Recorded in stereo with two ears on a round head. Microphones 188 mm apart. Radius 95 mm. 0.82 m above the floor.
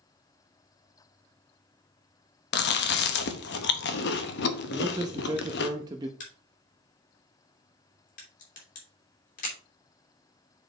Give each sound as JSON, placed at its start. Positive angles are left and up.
{"t": 2.5, "sound": "chewing", "side_deg": 55, "distance_m": 0.9}
{"t": 4.7, "sound": "a man speaking", "side_deg": -20, "distance_m": 0.6}
{"t": 6.2, "sound": "a crack", "side_deg": 40, "distance_m": 3.0}